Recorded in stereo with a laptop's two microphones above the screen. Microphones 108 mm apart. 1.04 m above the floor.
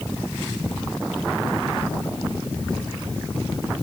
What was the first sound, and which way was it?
Only background noise.